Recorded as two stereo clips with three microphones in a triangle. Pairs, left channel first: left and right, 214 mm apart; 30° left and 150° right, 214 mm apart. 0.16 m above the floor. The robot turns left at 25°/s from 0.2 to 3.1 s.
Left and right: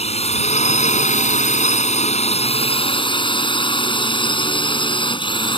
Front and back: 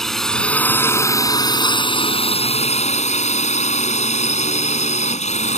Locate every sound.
0.0 s a drone: 115° left; by 5.6 s 45° left